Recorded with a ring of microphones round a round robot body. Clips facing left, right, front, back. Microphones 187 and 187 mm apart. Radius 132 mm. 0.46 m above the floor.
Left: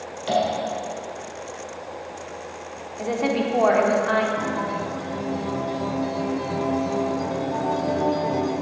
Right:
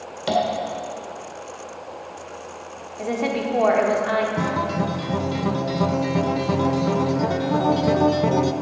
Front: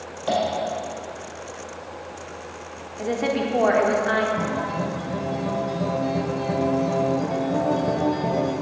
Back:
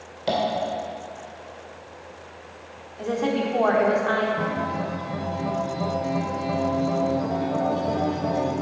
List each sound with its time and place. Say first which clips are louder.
0.3 s tapping: right 1 dB, front 1 dB; 110° right, 1.8 m
3.0 s a woman speaking: left 1 dB, even; 10° right, 1.2 m
4.4 s a guitar: right 3 dB, front 1 dB; 75° right, 0.6 m